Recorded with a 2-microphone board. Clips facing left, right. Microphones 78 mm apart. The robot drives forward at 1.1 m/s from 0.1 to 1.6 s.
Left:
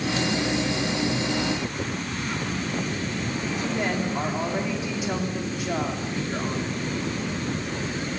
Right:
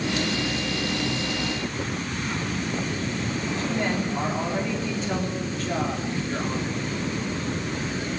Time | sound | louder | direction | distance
3.6 | a woman speaking | even | 10° left (ahead or behind) | 4 m